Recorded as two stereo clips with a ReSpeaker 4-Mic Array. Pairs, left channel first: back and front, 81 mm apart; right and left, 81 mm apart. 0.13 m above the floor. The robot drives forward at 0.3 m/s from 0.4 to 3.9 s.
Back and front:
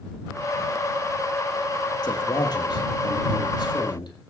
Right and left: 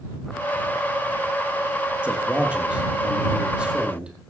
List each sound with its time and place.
2.0 s a man speaking: 165° left, 3.5 m; by 4.1 s 170° left, 4 m